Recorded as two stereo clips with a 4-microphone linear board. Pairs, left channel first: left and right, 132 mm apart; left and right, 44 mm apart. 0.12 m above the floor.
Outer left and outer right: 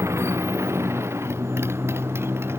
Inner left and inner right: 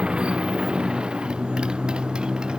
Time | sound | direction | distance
0.0 | a motorcycle | 20° right (ahead or behind) | ?